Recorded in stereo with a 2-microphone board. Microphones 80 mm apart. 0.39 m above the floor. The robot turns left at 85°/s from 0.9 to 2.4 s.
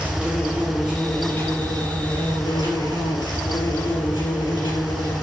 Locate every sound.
0.0 s an insect: 170° right, 3.5 m; by 5.2 s 65° left, 3.5 m